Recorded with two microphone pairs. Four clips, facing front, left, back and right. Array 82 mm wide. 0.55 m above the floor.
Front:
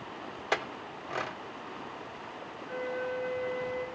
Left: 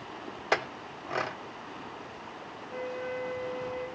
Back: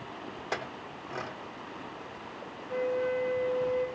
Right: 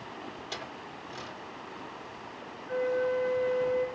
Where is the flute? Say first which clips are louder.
Right 8 dB, back 5 dB; 65° right, 3.5 m.